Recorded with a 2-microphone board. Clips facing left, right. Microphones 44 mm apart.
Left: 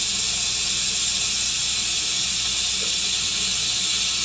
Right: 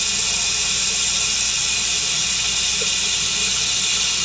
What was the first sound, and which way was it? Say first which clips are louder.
Running water: right 4 dB; 65° right (ahead or behind).